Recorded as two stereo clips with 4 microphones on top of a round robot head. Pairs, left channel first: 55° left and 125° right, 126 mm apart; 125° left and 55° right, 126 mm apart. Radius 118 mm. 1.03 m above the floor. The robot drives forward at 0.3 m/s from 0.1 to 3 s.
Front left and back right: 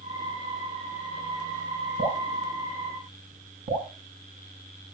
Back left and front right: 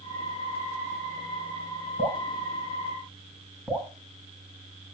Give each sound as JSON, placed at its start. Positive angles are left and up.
{"t": 2.0, "sound": "dripping", "azimuth_deg": -140, "distance_m": 7.0}